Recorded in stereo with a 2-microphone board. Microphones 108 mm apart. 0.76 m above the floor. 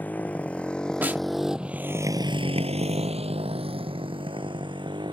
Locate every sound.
0.0 s a motorcycle: 15° left (ahead or behind); by 5.1 s 50° right (ahead or behind)
1.0 s a snare drum: 20° right (ahead or behind)